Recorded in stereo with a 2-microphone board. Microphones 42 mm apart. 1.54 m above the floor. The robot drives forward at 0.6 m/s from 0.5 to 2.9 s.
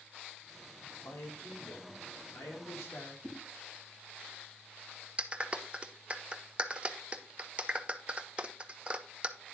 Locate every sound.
1.1 s a man speaking: 75° left (ahead or behind), 3.5 m; by 3.1 s 80° left, 3 m
3.2 s a whoosh: centre (ahead or behind), 2.5 m
5.2 s a clap: 30° right (ahead or behind), 0.6 m